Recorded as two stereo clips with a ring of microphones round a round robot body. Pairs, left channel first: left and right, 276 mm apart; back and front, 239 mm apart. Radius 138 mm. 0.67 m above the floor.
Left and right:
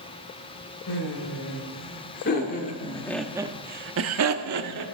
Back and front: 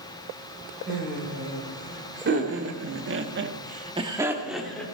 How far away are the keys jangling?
I don't hear keys jangling.